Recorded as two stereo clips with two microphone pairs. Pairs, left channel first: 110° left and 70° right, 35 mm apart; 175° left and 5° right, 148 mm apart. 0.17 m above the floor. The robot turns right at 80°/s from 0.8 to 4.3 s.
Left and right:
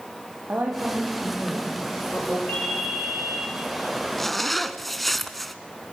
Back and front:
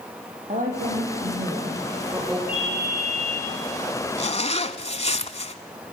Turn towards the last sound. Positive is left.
turn(degrees=-165)